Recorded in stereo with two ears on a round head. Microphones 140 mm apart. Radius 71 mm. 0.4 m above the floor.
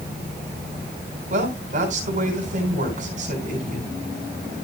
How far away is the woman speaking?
About 4 m.